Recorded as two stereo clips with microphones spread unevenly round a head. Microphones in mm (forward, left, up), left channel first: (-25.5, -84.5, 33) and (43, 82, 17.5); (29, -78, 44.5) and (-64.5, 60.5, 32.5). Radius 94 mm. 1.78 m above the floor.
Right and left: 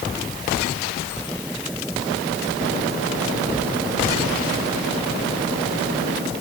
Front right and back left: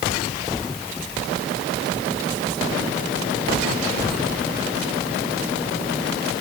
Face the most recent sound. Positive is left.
No sound to turn to.